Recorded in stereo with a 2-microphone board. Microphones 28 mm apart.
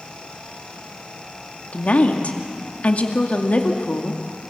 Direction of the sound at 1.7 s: 60° left (ahead or behind).